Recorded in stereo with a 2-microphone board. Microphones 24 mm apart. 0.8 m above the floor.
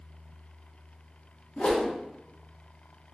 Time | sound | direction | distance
1.6 | a whoosh | 55° left (ahead or behind) | 1.0 m